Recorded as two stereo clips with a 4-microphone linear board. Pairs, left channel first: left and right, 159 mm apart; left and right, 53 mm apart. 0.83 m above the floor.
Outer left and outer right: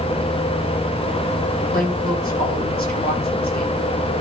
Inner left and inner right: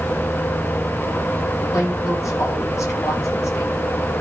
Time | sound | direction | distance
1.7 | a woman speaking | 70° left (ahead or behind) | 6.5 m